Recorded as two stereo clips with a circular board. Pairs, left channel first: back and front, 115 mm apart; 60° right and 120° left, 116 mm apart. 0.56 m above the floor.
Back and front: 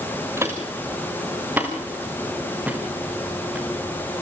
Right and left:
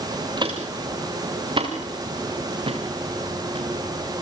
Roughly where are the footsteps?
Left.